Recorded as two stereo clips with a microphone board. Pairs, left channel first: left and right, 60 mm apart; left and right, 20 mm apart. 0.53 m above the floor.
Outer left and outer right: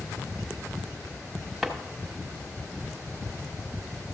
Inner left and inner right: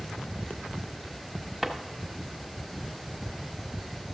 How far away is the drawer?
About 1.1 m.